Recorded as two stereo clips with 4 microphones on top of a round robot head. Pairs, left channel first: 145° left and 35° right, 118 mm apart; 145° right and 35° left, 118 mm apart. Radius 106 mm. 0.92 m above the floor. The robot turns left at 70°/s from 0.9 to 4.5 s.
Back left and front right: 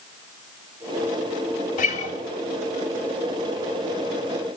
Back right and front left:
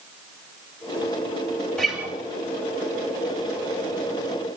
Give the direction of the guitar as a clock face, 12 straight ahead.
8 o'clock.